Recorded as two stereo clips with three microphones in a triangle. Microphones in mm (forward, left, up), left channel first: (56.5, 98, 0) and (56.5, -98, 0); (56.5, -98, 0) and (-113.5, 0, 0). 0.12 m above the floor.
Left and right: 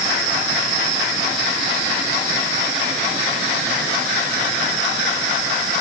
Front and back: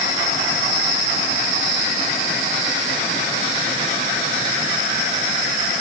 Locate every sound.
Only background noise.